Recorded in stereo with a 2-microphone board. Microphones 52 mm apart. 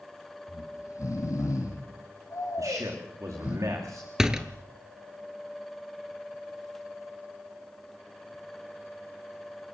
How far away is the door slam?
About 1.7 m.